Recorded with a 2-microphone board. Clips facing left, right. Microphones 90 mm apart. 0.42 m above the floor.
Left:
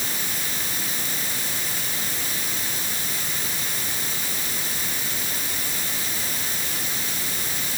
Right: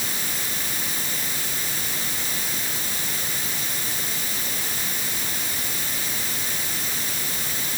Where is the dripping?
No dripping in this recording.